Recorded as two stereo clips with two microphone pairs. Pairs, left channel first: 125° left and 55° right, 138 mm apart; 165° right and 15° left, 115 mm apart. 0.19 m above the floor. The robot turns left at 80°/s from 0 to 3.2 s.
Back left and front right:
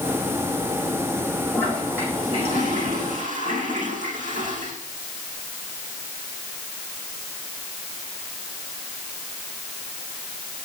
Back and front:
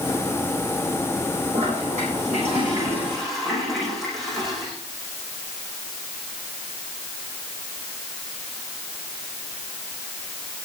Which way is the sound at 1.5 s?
60° left.